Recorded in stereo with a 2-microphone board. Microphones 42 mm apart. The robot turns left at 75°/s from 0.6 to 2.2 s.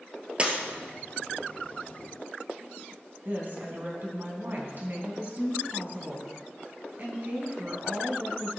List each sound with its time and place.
0.4 s breaking glass: 30° right (ahead or behind), 1.9 m
3.2 s a woman speaking: 45° right (ahead or behind), 3 m